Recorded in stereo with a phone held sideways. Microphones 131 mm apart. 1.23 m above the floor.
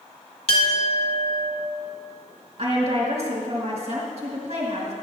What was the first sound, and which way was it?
A clink, 45° left (ahead or behind).